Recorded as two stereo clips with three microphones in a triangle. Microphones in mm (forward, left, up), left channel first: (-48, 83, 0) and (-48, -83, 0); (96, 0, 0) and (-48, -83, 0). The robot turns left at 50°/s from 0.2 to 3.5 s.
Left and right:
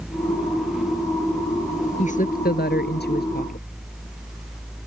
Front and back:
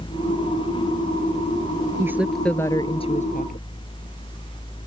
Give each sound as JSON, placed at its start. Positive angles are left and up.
{"t": 2.0, "sound": "a woman speaking", "azimuth_deg": 135}